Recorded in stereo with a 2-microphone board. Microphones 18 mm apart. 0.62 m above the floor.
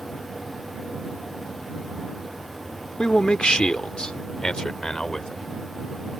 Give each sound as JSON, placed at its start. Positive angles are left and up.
{"t": 3.0, "sound": "a man speaking", "side_deg": 60}